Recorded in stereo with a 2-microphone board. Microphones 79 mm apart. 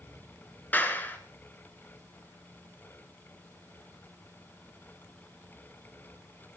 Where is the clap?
25° left (ahead or behind), 2 m.